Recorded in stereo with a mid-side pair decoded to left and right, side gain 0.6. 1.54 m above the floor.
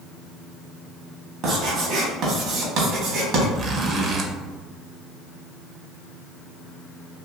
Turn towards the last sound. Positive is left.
turn(degrees=-40)